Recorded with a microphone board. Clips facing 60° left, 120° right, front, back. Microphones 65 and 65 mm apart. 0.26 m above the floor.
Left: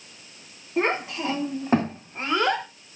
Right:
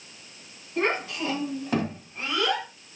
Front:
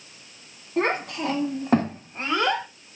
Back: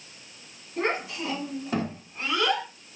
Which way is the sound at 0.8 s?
5° right.